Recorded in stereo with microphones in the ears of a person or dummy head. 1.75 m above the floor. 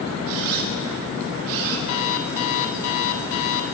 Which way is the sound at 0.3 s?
60° right (ahead or behind).